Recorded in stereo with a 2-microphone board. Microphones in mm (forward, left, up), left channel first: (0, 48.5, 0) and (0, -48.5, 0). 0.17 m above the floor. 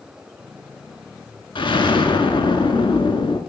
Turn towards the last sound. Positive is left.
turn(degrees=60)  # may be behind; listen again after turning